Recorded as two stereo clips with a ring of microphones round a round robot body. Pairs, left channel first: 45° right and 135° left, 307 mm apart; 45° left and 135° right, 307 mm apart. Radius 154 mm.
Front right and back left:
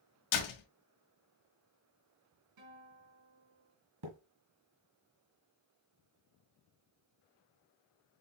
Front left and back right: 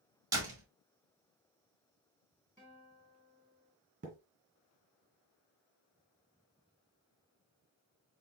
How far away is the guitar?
About 3.5 m.